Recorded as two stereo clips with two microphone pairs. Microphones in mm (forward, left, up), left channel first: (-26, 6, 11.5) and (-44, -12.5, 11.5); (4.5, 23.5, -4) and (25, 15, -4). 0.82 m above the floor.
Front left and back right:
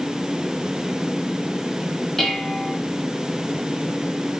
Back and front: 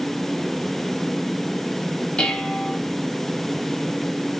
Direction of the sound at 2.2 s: 125° left.